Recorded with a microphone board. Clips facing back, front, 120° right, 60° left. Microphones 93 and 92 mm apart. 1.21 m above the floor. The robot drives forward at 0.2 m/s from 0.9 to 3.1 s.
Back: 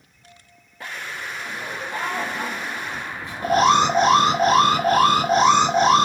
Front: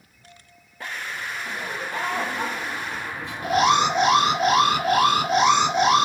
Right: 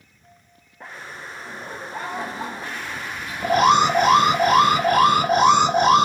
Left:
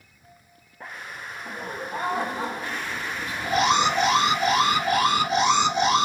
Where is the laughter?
95° left, 2.0 m; by 4.0 s 105° left, 2 m.